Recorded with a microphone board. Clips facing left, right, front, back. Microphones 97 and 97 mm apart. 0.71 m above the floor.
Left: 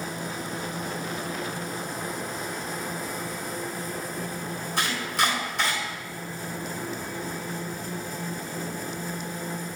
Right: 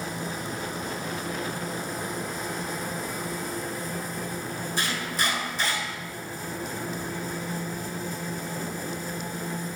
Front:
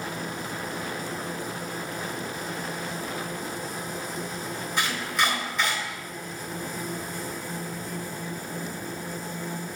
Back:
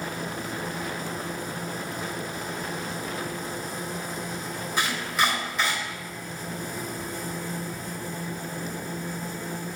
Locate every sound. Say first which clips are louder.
4.8 s chopping: left 4 dB, back 1 dB; 95° left, 3.5 m